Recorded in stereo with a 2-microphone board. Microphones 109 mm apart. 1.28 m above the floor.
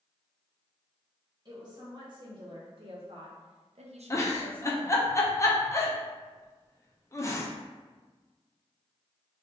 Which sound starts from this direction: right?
A woman speaking, at 1.4 s.